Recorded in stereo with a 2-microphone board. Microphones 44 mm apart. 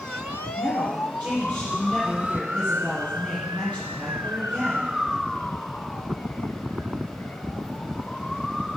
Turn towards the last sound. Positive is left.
turn(degrees=-20)  # may be behind; listen again after turning